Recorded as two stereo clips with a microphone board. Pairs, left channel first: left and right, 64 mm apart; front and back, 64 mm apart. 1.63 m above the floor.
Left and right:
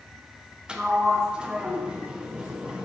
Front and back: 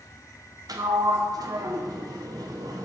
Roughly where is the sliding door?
Behind.